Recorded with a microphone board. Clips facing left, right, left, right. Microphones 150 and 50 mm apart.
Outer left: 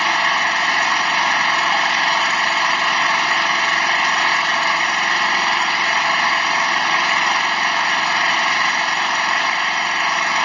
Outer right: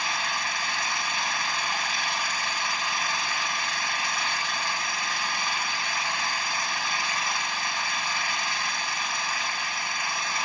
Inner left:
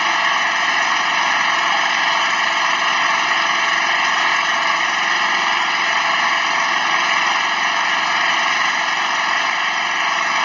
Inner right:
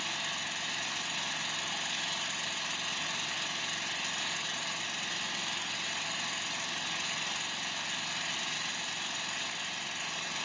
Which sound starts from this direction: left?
An engine running, at 0.0 s.